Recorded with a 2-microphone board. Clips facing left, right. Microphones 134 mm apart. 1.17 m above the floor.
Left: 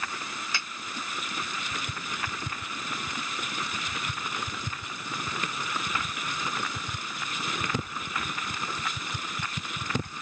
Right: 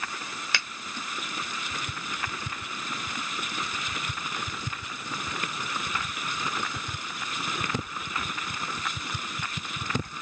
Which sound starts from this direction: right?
A finger snap, at 0.5 s.